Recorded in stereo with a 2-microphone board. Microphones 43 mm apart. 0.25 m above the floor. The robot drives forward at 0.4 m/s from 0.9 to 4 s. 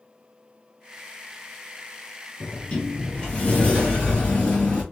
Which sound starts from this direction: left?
A sliding door, at 2.4 s.